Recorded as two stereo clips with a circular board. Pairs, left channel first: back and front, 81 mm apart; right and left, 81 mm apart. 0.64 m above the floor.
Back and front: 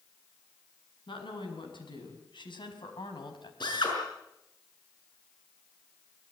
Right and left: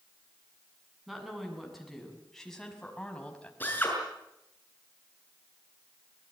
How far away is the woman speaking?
About 6.5 m.